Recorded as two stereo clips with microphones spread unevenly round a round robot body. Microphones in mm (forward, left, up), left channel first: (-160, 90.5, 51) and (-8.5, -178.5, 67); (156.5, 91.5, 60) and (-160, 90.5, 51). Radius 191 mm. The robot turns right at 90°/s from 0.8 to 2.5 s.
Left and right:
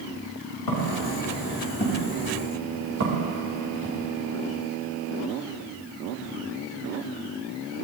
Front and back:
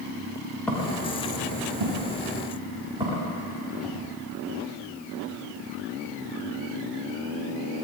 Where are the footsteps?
85° left, 7.5 m; by 4.0 s 90° right, 7.5 m.